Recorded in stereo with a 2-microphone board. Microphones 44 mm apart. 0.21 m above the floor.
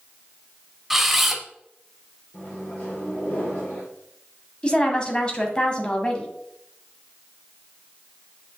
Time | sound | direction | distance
0.9 | a camera shutter | 5° right (ahead or behind) | 1.0 m
2.3 | a microwave | 40° left (ahead or behind) | 3.5 m
4.6 | a woman speaking | 25° left (ahead or behind) | 1.5 m